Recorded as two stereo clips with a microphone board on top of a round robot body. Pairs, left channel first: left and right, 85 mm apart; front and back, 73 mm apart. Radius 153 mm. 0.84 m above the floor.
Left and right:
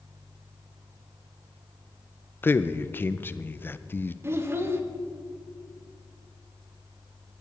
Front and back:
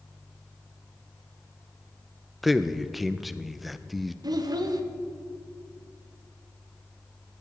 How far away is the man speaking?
About 0.6 m.